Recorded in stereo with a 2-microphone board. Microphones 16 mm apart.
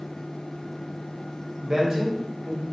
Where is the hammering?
No hammering in this recording.